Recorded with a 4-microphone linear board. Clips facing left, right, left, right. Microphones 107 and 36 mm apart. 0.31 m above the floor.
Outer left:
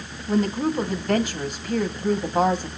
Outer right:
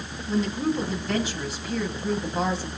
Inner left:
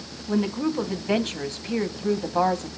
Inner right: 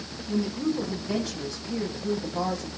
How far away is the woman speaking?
About 2.0 m.